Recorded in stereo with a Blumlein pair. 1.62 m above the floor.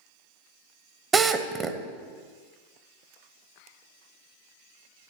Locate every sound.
1.1 s a drill: 20° right, 0.9 m